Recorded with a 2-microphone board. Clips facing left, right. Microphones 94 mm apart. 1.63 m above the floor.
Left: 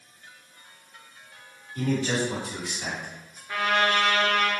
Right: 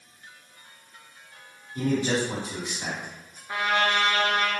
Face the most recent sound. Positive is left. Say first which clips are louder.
# left 1 dB
turn(degrees=-20)  # may be behind; listen again after turning